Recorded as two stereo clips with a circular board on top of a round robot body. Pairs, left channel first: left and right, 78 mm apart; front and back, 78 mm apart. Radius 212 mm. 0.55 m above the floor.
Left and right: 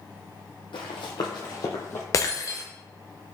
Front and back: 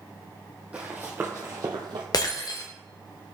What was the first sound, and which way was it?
Running footsteps, 105° left.